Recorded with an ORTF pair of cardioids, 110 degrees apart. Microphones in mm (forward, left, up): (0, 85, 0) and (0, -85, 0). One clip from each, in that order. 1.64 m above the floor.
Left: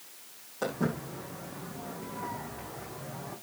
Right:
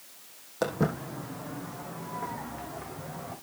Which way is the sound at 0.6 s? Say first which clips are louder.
Right 3 dB; 60° right.